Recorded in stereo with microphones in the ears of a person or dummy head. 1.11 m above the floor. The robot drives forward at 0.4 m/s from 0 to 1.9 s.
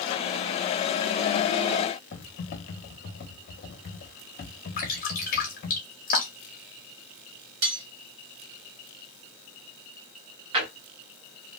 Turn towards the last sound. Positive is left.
turn(degrees=-30)  # may be behind; listen again after turning